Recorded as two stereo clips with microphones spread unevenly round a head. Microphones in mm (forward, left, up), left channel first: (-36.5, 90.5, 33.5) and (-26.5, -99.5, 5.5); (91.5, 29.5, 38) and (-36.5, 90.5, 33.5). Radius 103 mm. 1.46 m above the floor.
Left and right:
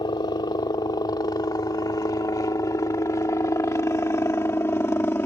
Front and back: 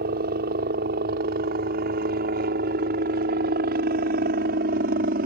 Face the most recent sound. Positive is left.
turn(degrees=170)